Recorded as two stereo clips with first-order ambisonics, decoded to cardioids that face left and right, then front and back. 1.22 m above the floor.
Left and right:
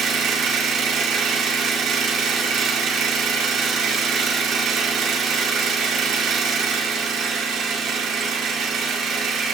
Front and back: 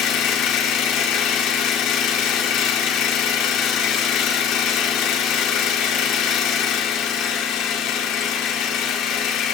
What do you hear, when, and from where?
0.0 s an engine running: 40° right, 1.9 m